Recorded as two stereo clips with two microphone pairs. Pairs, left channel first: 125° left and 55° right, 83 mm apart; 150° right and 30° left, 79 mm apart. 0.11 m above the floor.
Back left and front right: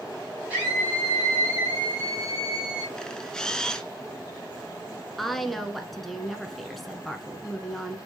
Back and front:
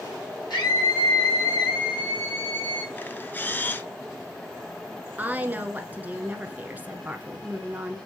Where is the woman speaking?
40° left, 1.1 m.